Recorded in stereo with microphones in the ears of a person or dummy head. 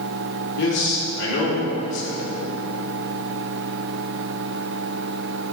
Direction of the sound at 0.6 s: 65° left (ahead or behind).